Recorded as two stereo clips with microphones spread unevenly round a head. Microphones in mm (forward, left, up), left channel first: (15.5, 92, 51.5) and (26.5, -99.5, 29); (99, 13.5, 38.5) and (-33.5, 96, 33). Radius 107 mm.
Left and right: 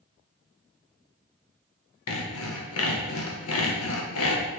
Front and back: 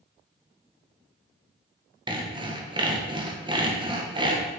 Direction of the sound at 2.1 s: 90° left.